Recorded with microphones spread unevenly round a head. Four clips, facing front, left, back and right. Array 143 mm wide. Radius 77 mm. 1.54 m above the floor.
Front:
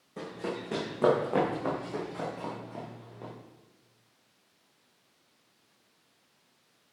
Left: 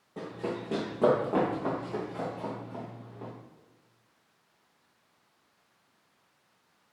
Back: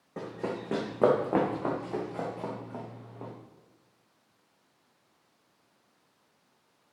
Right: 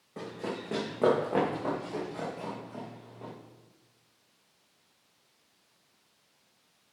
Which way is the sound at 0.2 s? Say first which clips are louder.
Left 2 dB, back 1 dB; 170° right.